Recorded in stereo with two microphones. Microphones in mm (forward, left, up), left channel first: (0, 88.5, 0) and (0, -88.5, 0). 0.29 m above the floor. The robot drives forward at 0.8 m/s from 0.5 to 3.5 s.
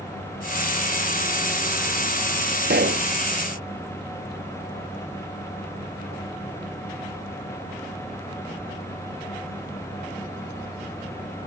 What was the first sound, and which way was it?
A pop, 65° right (ahead or behind).